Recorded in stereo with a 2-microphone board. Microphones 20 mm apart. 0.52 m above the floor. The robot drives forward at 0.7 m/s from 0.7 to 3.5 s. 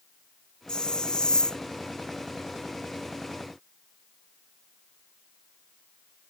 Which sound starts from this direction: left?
A hiss, at 0.7 s.